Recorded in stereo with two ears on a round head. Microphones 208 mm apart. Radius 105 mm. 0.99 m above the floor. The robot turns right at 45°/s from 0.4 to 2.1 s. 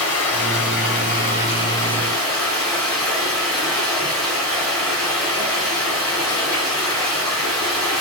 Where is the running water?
100° left, 3.5 m; by 8.0 s 175° left, 3.5 m.